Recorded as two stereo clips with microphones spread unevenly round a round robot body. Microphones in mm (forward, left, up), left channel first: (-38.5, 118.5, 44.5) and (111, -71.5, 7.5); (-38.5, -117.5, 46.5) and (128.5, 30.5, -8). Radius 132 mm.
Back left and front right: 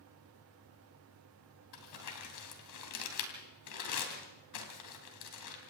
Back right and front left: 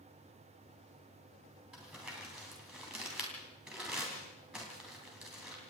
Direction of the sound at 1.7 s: 130° left.